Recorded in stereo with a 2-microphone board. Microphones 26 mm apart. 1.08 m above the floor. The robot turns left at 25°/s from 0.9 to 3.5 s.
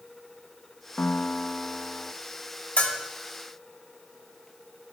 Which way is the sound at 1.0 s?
65° left (ahead or behind).